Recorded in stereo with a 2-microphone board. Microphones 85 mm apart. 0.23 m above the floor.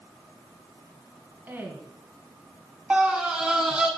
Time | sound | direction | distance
1.5 | a woman speaking | 25° right (ahead or behind) | 1.9 m
2.9 | a scream | 15° right (ahead or behind) | 1.9 m